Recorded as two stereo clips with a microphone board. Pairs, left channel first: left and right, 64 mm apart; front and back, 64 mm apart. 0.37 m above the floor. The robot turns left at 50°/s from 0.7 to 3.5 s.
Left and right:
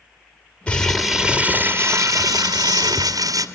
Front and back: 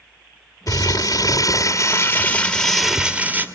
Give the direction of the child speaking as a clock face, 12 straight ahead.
I don't hear a child speaking.